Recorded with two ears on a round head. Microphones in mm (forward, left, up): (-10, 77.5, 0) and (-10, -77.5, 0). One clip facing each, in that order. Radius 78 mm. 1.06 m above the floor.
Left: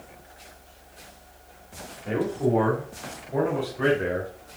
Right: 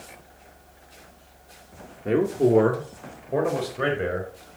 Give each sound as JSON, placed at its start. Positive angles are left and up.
{"t": 2.0, "sound": "a man speaking", "side_deg": -50, "distance_m": 1.1}